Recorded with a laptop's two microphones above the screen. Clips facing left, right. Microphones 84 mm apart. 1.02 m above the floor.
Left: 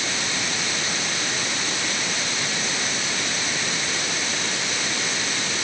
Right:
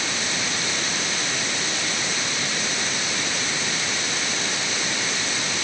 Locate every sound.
Only background noise.